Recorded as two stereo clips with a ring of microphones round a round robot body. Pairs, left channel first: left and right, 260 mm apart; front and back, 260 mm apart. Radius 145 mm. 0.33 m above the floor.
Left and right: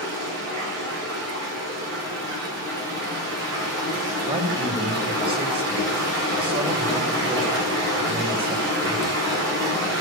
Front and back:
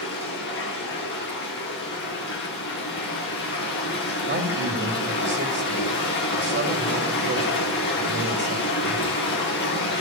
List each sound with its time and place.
0.0 s running water: 45° right, 9.5 m
4.3 s a man speaking: 155° right, 2 m